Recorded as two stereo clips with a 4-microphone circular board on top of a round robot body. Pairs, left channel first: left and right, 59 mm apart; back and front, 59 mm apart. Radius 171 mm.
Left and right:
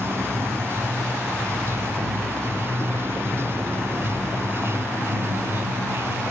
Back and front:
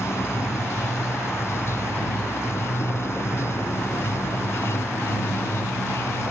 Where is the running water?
135° right.